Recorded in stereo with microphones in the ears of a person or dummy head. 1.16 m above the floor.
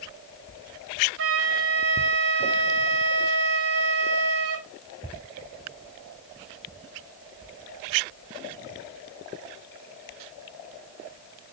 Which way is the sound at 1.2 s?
70° right (ahead or behind).